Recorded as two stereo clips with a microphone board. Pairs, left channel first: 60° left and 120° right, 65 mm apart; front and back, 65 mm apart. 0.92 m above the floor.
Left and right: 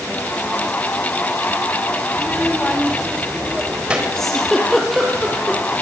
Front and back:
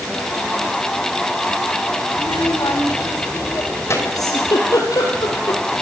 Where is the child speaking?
5° right, 3 m; by 4.0 s 45° right, 4 m.